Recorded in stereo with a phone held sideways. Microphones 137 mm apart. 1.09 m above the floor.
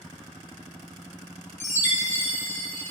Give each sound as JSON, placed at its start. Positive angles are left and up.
{"t": 1.6, "sound": "a chime", "side_deg": -65, "distance_m": 1.3}